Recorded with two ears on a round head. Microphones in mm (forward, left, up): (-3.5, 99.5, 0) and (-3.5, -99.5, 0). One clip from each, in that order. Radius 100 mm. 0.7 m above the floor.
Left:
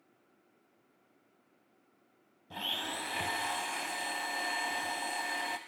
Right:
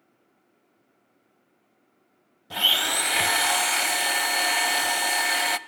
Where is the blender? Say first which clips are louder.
Right 14 dB; 55° right (ahead or behind), 1.0 m.